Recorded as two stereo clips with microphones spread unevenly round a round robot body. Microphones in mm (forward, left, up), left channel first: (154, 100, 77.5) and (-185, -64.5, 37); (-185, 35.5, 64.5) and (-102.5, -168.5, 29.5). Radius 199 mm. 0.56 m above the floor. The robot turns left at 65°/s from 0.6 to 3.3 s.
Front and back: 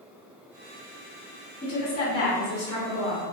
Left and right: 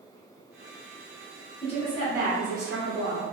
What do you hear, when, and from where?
1.6 s a woman speaking: 60° left, 1.3 m; by 3.2 s 45° right, 1.3 m